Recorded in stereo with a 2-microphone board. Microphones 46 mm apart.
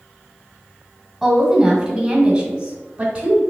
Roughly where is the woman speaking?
Centre.